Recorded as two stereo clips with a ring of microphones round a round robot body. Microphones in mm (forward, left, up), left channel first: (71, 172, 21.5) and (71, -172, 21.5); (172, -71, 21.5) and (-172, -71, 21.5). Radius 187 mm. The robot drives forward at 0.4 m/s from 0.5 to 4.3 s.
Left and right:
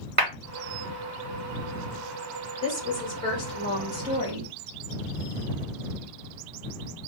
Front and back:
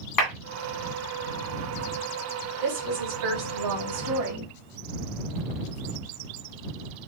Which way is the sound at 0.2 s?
30° right.